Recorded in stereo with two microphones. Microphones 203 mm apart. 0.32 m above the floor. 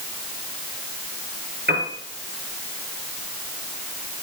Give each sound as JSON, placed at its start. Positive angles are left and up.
{"t": 1.7, "sound": "a piano", "side_deg": -60, "distance_m": 5.0}